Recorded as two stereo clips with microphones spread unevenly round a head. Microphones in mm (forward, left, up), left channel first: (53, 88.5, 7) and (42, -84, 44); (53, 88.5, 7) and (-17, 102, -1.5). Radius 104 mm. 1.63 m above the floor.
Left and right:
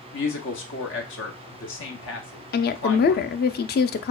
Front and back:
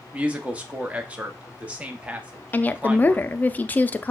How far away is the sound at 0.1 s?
About 0.9 m.